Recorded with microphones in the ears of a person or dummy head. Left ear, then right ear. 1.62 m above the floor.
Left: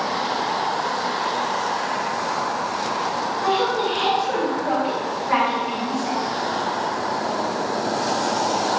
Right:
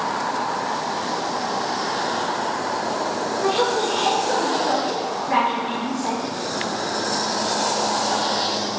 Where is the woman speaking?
30° right (ahead or behind), 2.5 m; by 6.2 s 5° right (ahead or behind), 4 m.